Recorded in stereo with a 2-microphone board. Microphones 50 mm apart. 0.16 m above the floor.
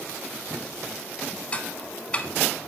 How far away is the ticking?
About 0.6 m.